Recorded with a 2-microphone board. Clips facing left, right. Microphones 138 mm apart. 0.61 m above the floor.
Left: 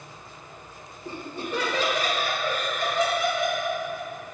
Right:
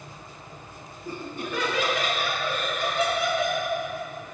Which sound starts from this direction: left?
Laughter, at 1.1 s.